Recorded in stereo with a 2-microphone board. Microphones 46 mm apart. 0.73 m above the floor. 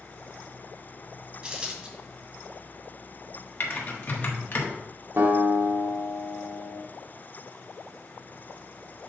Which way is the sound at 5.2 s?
60° right (ahead or behind).